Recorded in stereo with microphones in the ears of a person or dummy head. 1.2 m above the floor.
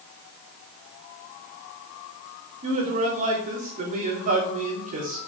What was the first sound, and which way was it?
A man speaking, 40° right (ahead or behind).